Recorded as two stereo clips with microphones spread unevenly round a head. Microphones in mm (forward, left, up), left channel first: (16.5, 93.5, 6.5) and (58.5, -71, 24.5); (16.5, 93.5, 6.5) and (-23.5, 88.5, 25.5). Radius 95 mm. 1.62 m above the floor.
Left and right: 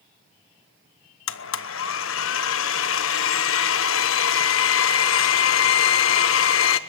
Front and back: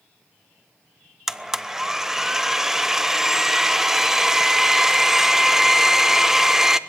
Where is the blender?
110° left, 1.0 m.